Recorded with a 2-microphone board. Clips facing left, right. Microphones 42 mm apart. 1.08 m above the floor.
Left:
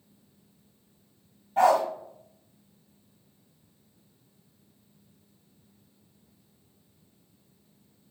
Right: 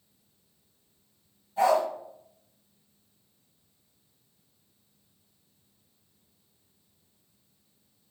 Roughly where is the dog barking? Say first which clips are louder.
Left 2 dB; left.